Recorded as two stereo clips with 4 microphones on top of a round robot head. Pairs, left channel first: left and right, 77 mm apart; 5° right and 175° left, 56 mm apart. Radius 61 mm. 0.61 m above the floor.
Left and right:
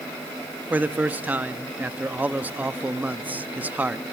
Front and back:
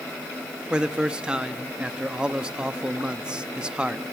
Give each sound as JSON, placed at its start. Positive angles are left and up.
{"t": 0.7, "sound": "a man speaking", "azimuth_deg": -130, "distance_m": 0.7}